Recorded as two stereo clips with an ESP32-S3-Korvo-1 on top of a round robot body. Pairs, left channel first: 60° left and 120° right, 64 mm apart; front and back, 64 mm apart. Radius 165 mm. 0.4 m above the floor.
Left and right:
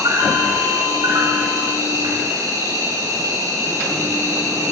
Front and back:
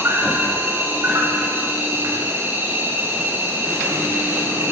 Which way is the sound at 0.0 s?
130° right.